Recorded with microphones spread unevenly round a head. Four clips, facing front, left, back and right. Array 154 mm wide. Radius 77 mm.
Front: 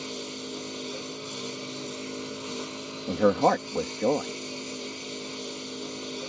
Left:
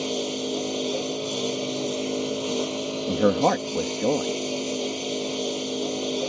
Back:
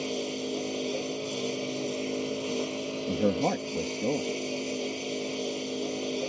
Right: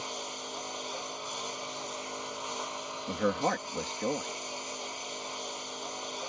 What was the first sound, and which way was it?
A lawn mower, 100° left.